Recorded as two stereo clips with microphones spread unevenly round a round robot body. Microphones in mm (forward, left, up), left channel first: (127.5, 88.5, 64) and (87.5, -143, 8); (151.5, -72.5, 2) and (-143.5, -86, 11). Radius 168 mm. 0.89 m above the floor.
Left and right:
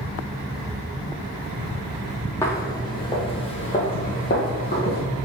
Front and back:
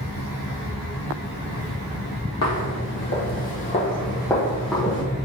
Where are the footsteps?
20° left, 1.2 m; by 5.0 s 100° left, 1.4 m.